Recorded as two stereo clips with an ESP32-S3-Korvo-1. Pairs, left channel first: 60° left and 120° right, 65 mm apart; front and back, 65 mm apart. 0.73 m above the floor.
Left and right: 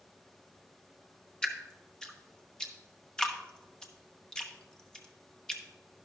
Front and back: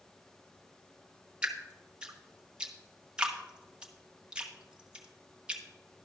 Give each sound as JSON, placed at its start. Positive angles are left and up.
{"t": 1.4, "sound": "dripping", "azimuth_deg": 120, "distance_m": 1.0}